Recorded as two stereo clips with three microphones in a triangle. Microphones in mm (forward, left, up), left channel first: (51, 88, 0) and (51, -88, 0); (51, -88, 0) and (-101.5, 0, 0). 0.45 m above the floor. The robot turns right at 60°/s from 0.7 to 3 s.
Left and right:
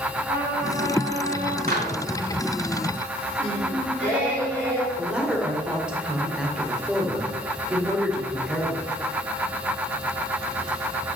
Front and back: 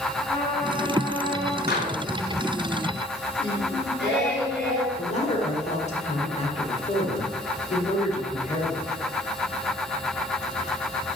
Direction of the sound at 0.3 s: 105° right.